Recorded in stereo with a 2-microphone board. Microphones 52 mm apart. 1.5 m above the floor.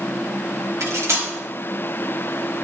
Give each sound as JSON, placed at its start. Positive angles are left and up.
{"t": 0.8, "sound": "cutlery clinking", "side_deg": -65, "distance_m": 1.8}